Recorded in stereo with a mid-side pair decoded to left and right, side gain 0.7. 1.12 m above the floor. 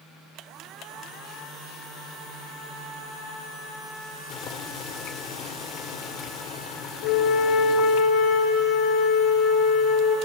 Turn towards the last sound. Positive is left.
turn(degrees=70)